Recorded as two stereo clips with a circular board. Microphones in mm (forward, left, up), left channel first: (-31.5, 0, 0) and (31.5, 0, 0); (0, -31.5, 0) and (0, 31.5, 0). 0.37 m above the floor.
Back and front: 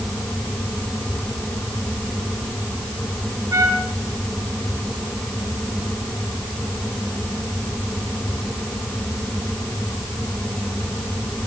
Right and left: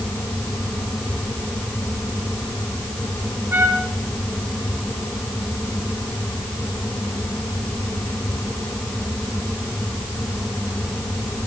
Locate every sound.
3.5 s a trumpet: 35° left, 3 m